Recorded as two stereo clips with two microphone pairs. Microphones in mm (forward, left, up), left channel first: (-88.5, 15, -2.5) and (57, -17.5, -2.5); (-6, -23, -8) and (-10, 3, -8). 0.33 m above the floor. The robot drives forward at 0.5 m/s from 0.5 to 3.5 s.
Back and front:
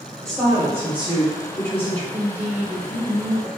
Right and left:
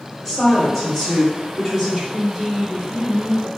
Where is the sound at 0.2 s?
20° right, 1.1 m; by 2.0 s 165° right, 1.1 m.